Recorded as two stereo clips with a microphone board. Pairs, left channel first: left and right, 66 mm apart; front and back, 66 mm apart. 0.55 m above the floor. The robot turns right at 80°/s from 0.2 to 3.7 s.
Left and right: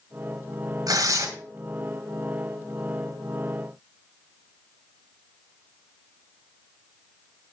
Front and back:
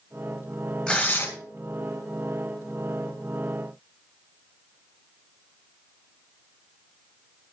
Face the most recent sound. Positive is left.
turn(degrees=150)